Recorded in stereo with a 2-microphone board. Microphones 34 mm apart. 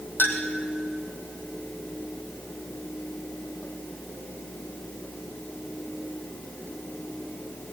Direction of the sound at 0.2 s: 75° left (ahead or behind).